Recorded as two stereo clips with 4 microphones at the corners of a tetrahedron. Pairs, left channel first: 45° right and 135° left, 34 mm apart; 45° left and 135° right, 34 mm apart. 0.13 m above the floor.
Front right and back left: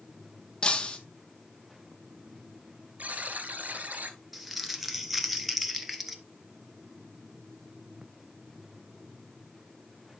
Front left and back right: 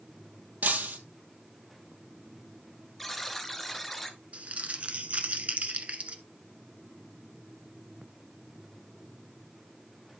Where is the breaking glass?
105° right, 1.2 m.